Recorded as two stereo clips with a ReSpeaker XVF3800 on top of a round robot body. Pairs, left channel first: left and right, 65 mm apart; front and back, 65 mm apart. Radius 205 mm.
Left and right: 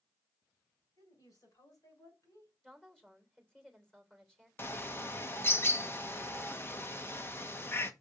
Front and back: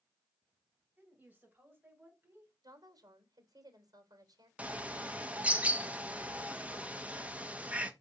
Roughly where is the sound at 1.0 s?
Left.